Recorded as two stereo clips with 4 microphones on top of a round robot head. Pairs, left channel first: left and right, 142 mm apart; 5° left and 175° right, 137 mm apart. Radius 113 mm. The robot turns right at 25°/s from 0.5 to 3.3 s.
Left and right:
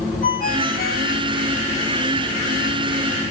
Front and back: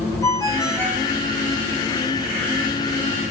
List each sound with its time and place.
0.2 s a ringtone: 70° left, 4.5 m; by 1.1 s 90° left, 4.5 m